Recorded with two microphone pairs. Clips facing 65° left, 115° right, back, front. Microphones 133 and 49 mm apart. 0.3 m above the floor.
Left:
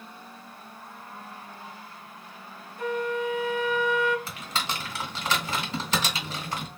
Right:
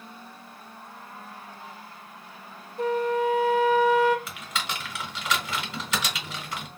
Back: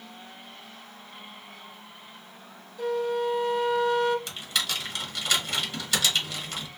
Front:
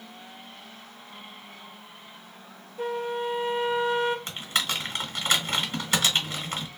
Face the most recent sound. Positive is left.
turn(degrees=30)